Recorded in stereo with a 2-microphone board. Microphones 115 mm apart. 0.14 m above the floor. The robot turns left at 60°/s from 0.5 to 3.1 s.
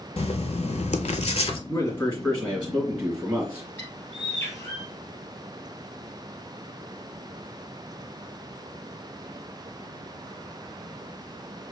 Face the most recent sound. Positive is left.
turn(degrees=20)  # may be behind; listen again after turning